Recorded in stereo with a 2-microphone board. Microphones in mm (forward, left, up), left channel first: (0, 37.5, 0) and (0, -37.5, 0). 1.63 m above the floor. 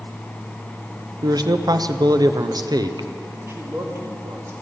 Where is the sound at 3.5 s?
40° right (ahead or behind), 2 m.